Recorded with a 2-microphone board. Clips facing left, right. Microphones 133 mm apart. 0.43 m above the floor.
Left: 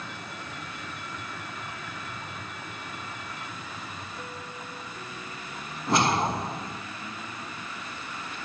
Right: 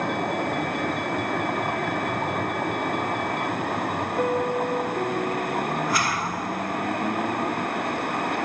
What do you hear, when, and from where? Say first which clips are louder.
0.0 s a vehicle: right 15 dB; 60° right (ahead or behind)
4.2 s a piano: right 17 dB; 65° right (ahead or behind)
5.9 s a whoosh: left 1 dB; 25° left (ahead or behind)